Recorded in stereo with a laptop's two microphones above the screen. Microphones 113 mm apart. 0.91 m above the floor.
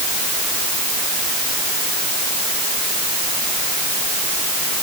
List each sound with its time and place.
Only background noise.